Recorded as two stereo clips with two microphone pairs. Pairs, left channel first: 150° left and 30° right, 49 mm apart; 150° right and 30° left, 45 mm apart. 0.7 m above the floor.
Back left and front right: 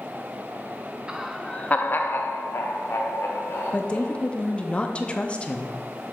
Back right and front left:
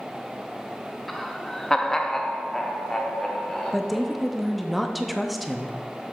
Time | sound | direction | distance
1.1 | laughter | 70° right | 0.5 m
3.7 | a woman speaking | 120° left | 0.6 m